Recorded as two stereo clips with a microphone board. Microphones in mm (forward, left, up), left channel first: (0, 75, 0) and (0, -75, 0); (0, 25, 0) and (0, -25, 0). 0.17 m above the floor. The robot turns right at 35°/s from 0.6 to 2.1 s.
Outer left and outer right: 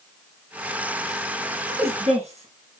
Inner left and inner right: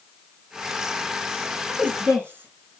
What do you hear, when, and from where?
1.7 s a woman speaking: 35° right (ahead or behind), 1.7 m; by 2.8 s 45° right (ahead or behind), 1.7 m